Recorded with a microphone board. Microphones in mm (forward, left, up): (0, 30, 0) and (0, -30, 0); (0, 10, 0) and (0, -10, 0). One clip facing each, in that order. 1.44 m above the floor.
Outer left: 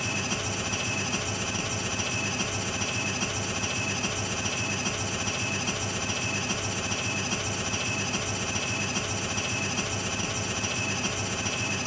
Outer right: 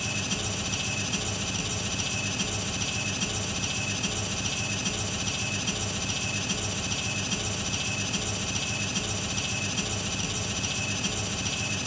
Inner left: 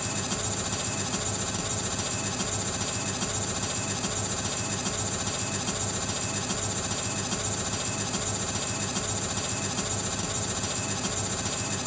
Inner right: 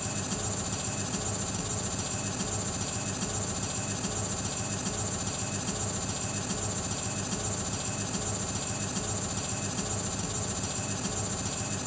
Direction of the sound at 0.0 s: 30° left (ahead or behind).